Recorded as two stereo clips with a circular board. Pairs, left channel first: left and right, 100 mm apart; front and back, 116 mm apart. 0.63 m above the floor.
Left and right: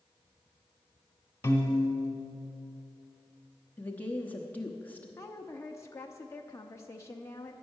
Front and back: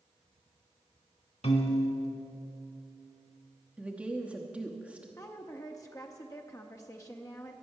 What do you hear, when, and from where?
1.4 s a piano: 25° left, 1.5 m
3.8 s a woman speaking: 125° left, 0.9 m
5.2 s a woman speaking: 45° left, 0.7 m